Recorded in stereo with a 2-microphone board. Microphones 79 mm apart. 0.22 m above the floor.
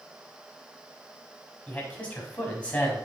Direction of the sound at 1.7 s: 20° left (ahead or behind).